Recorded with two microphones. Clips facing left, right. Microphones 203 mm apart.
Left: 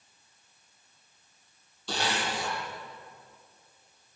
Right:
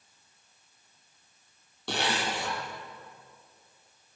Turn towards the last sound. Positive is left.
turn(degrees=-75)  # may be behind; listen again after turning